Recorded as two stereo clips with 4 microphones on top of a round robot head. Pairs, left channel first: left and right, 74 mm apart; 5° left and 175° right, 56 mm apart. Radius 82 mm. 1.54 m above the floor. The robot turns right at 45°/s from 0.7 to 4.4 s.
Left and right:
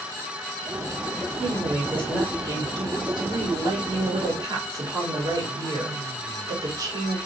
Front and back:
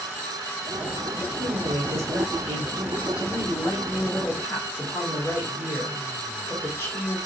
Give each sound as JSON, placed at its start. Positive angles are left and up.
{"t": 1.4, "sound": "a woman speaking", "azimuth_deg": 170, "distance_m": 1.5}